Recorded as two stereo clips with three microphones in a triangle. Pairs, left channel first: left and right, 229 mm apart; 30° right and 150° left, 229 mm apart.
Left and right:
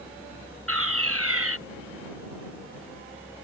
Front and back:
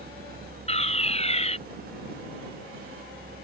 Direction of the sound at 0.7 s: 90° right.